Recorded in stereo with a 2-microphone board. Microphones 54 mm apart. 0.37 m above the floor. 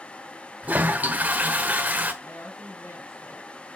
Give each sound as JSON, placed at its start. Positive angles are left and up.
{"t": 0.6, "sound": "a toilet flushing", "side_deg": -30, "distance_m": 1.1}
{"t": 2.2, "sound": "a woman speaking", "side_deg": 75, "distance_m": 3.5}